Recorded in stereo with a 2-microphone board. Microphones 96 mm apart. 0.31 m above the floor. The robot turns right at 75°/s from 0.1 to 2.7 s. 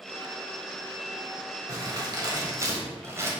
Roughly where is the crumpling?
Behind right.